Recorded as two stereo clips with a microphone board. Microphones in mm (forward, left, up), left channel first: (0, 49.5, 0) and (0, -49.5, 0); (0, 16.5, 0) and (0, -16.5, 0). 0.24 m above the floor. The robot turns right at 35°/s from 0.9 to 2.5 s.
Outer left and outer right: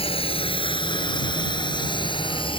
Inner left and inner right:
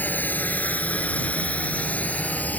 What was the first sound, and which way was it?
A drone, 75° left (ahead or behind).